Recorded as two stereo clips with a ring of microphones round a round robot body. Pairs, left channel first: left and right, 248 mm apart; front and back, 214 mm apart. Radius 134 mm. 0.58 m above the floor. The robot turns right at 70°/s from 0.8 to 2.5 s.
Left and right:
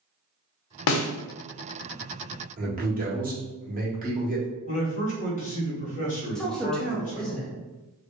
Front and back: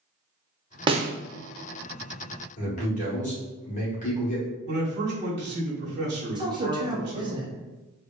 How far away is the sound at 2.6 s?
About 1.2 m.